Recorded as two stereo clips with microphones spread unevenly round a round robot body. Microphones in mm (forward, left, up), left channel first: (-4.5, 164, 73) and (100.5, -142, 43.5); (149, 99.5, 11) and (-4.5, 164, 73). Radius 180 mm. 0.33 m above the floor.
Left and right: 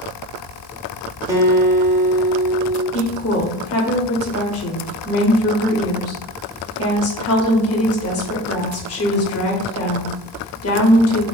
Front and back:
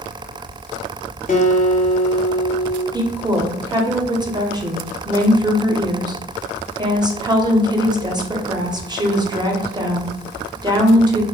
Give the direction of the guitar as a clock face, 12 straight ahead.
12 o'clock.